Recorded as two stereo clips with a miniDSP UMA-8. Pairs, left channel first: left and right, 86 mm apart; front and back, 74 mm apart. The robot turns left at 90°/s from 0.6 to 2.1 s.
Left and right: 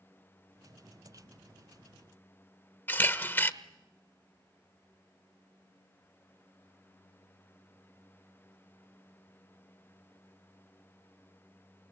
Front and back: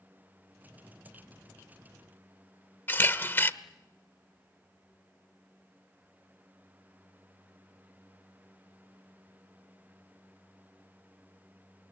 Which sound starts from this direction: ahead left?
A camera shutter, at 2.9 s.